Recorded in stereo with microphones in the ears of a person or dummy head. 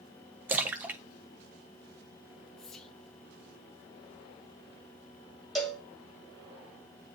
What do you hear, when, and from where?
0.5 s a splash: 10° right (ahead or behind), 0.6 m
2.6 s whispering: 5° left (ahead or behind), 0.9 m
5.5 s a cowbell: 10° left (ahead or behind), 1.1 m